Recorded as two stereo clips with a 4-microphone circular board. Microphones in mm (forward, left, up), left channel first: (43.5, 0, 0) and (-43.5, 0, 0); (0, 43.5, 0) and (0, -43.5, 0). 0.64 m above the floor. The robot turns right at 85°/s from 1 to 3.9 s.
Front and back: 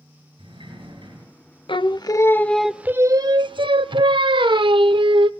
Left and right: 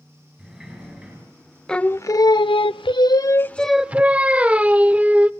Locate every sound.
0.4 s a sliding door: 170° right, 8 m; by 1.2 s 145° right, 8 m
1.7 s singing: 10° left, 0.5 m; by 5.3 s 165° right, 0.5 m